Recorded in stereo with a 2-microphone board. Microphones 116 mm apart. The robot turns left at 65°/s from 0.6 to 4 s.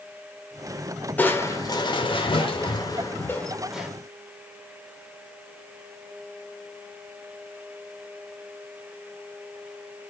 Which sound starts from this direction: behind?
Crushing, at 1.2 s.